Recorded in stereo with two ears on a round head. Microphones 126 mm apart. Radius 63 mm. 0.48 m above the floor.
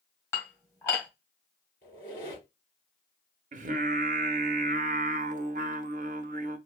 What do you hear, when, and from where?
0.3 s dishes clattering: 20° left (ahead or behind), 1.5 m
1.8 s a squeak: 35° left (ahead or behind), 3 m
3.5 s singing: 60° right (ahead or behind), 0.6 m